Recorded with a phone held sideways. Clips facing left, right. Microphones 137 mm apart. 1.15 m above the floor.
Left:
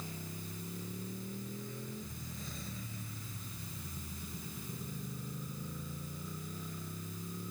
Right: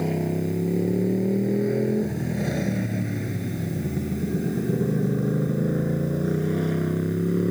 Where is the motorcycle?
70° right (ahead or behind); by 7.5 s 80° right.